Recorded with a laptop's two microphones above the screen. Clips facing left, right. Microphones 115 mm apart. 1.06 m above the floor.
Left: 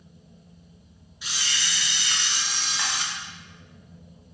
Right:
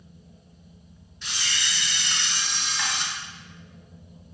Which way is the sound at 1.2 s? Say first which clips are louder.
Even; 10° left (ahead or behind).